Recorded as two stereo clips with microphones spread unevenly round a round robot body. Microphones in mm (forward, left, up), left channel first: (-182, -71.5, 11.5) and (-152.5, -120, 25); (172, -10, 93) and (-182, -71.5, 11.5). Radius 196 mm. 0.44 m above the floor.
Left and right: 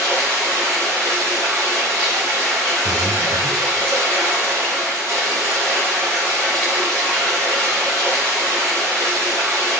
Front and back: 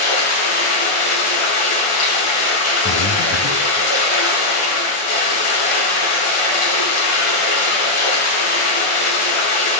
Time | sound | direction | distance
0.0 | running water | 10° right | 2.5 m
2.9 | breathing | 50° right | 0.6 m